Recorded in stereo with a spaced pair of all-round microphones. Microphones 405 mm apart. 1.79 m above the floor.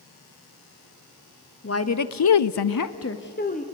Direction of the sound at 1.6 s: 35° left (ahead or behind).